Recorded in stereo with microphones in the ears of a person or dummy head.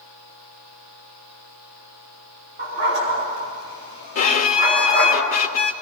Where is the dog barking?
35° right (ahead or behind), 5.5 m; by 5.2 s 20° right (ahead or behind), 7 m.